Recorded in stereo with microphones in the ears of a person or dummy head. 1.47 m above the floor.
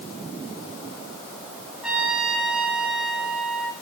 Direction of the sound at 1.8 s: 5° right (ahead or behind).